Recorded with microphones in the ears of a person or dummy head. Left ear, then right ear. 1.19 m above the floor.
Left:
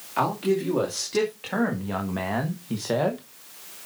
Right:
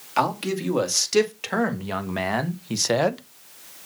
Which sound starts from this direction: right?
A man speaking, at 0.2 s.